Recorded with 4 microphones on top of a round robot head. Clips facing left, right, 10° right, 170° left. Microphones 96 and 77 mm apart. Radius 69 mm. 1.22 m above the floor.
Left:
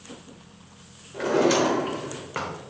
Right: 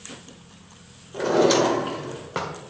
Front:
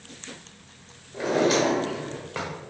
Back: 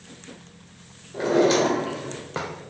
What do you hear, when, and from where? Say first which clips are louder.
1.1 s a drawer: right 2 dB, back 3 dB; 145° right, 1.0 m